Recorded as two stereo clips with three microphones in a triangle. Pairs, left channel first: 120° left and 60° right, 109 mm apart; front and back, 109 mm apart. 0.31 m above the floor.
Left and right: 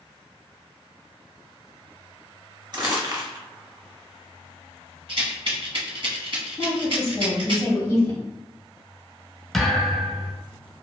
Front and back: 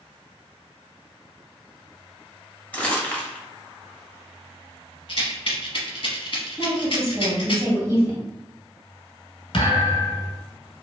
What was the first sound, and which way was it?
Crumpling, 70° right.